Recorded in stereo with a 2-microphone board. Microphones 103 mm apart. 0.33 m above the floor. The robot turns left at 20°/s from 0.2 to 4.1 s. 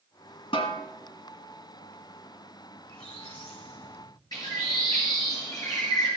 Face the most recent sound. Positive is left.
turn(degrees=40)  # may be behind; listen again after turning